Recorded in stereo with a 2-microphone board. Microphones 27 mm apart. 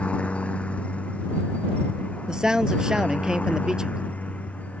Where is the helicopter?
50° left (ahead or behind); by 4.8 s 60° left (ahead or behind).